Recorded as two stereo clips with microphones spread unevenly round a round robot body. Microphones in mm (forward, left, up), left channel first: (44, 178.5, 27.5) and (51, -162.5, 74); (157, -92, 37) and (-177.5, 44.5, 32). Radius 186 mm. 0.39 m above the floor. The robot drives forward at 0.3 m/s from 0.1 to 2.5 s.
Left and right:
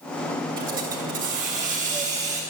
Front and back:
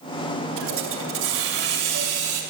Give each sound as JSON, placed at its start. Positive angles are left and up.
{"t": 0.6, "sound": "a hiss", "azimuth_deg": -155, "distance_m": 2.0}